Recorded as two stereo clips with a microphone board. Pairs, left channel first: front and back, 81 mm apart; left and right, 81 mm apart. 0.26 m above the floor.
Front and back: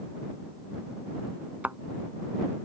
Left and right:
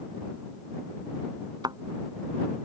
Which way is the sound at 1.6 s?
110° right.